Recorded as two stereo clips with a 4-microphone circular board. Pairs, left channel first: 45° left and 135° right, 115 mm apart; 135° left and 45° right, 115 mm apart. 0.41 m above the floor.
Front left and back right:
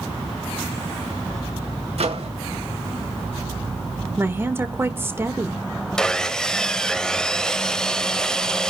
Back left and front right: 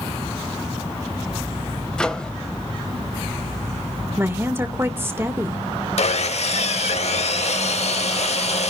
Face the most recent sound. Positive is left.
turn(degrees=130)